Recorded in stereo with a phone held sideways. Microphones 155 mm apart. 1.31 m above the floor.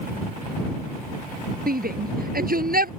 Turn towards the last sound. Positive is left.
turn(degrees=-70)  # may be behind; listen again after turning